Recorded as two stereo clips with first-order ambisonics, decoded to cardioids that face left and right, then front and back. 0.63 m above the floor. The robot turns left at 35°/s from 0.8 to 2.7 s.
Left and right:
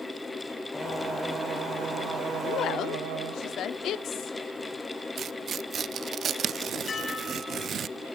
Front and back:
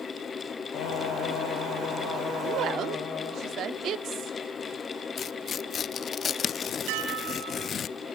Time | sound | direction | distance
0.7 | singing | 10° left | 4 m
2.4 | a woman speaking | 145° left | 0.9 m
5.2 | tearing paper | 45° right | 0.5 m
6.9 | dishes clattering | 165° left | 3 m